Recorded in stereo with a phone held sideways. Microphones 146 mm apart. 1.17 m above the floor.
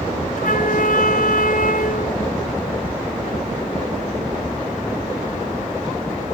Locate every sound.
0.4 s a flute: 70° left (ahead or behind)